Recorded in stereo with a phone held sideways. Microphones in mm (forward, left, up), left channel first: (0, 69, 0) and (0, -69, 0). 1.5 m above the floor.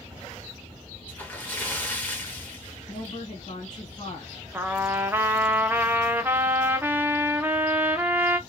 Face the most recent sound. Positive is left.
turn(degrees=-15)  # may be behind; listen again after turning